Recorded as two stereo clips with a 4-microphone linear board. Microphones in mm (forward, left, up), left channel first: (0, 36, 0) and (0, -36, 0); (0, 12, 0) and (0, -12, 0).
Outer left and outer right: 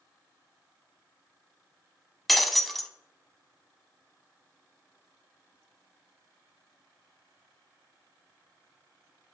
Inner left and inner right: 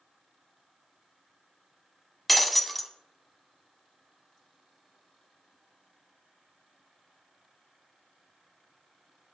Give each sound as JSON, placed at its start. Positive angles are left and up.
{"t": 2.3, "sound": "breaking glass", "side_deg": 0, "distance_m": 0.7}